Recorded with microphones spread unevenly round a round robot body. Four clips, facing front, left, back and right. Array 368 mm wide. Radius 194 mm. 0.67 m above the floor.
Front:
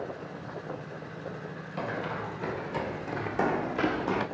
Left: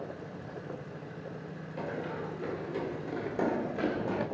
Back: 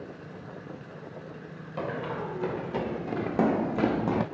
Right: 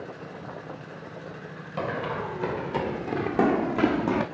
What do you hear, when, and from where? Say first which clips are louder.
1.8 s running footsteps: right 7 dB, back 1 dB; 115° right, 3.5 m; by 4.3 s 140° right, 1.4 m